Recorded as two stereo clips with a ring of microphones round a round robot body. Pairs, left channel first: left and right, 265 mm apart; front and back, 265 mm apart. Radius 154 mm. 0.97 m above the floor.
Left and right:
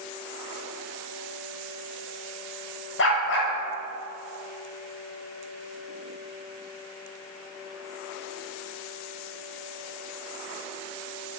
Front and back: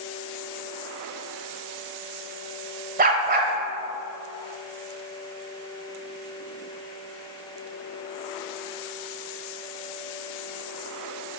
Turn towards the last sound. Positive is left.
turn(degrees=130)